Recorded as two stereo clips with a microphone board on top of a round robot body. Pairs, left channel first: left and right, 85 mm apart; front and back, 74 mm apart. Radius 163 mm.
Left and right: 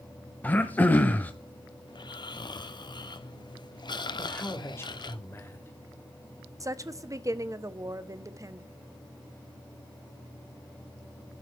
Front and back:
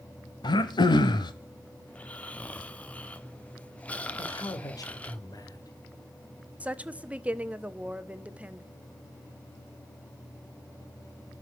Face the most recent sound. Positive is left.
turn(degrees=-115)